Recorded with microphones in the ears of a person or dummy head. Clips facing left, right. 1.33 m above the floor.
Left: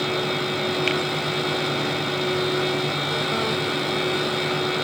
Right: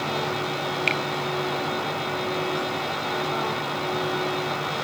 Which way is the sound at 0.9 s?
5° left (ahead or behind).